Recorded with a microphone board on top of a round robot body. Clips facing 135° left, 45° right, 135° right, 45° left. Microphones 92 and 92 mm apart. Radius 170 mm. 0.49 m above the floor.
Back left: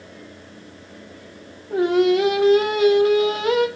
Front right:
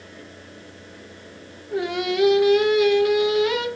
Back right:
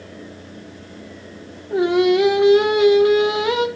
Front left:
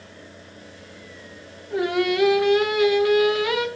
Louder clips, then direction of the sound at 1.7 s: Back left 7 dB, back right 6 dB; 170° left.